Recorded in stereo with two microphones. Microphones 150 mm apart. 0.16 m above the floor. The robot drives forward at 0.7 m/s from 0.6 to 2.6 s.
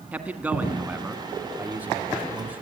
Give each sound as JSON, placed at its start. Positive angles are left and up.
{"t": 0.1, "sound": "a man speaking", "side_deg": -10, "distance_m": 1.8}